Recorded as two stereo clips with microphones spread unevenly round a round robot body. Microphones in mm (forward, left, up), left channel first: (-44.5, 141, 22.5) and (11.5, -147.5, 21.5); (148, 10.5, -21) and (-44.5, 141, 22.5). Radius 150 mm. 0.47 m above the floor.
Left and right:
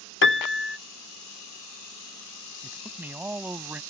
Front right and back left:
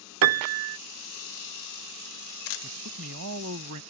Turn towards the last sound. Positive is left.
turn(degrees=-165)